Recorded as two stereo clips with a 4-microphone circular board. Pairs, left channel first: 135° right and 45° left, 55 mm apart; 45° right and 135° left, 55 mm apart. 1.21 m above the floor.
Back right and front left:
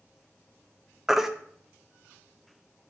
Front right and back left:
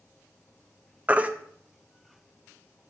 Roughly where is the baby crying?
Behind left.